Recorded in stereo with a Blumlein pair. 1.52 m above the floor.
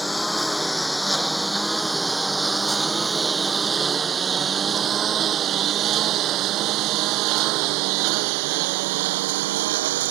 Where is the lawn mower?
5° left; by 10.1 s 55° right.